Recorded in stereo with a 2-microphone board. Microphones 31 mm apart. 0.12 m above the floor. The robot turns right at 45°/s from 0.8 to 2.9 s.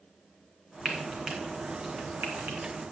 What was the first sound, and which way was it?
Frying, centre (ahead or behind).